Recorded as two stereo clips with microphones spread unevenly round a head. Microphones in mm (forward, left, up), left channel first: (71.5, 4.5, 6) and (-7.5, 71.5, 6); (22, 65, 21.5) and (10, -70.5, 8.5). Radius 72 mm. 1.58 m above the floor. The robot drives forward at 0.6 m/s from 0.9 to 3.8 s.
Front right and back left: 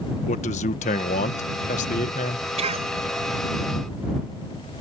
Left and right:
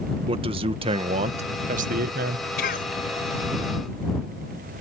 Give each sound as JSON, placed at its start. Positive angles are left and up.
{"t": 0.3, "sound": "a man speaking", "azimuth_deg": -45}
{"t": 2.6, "sound": "a cough", "azimuth_deg": 120}